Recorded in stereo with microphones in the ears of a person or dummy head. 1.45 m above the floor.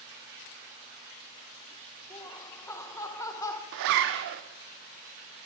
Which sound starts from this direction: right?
A zipper, at 3.7 s.